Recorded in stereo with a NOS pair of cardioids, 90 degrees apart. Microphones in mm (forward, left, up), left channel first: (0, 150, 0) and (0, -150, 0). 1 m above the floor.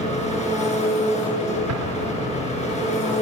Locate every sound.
0.0 s an engine running: 20° left, 6 m
1.7 s an explosion: 65° right, 3 m